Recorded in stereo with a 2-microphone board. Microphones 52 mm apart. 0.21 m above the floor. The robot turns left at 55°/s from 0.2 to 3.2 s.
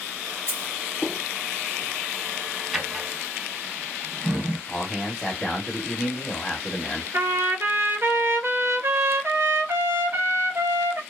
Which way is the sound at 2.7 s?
5° right (ahead or behind).